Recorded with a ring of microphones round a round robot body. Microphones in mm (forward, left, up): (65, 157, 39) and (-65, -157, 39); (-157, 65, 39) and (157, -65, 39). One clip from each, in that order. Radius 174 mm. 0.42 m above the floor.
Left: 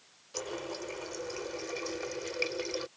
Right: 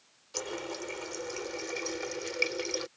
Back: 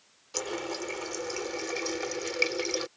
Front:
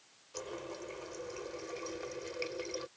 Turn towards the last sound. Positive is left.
turn(degrees=180)